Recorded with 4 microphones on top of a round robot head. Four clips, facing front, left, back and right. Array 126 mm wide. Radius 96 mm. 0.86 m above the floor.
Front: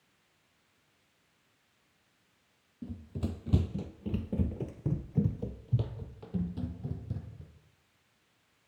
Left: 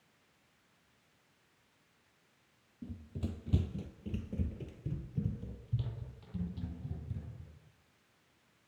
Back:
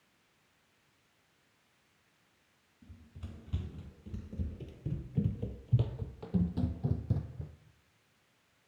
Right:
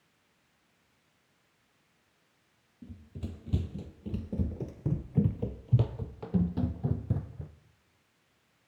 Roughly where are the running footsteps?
Ahead.